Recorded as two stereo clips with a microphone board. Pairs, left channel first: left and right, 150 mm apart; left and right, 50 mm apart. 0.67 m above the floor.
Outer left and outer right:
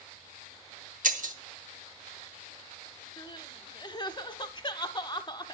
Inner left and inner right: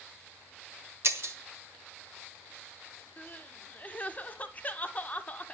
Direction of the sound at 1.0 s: 60° right (ahead or behind).